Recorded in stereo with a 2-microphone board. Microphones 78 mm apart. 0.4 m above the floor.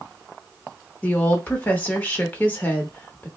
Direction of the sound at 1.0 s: 20° left (ahead or behind).